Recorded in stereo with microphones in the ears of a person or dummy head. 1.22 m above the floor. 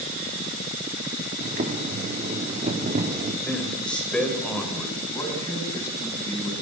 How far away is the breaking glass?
No breaking glass in this recording.